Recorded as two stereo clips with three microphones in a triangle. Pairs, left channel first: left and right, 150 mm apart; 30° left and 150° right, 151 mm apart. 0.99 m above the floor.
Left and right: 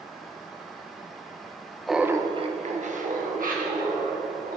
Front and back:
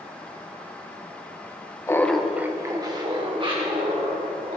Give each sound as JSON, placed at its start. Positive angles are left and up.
{"t": 1.9, "sound": "laughter", "azimuth_deg": 0, "distance_m": 0.8}